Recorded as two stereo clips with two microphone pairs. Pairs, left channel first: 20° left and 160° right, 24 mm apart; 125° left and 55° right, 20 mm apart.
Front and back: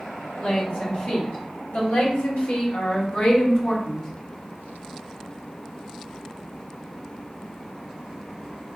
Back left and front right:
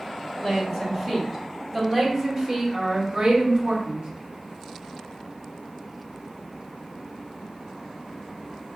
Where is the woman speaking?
55° left, 2.0 m; by 4.1 s 40° right, 1.1 m.